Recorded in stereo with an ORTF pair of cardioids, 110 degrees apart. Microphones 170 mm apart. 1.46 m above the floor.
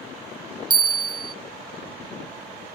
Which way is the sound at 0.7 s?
30° right.